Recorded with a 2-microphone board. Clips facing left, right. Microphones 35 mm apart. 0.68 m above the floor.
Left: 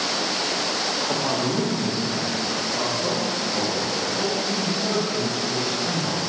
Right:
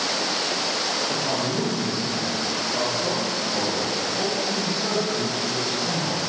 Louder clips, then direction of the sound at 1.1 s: Left 1 dB; 35° left (ahead or behind).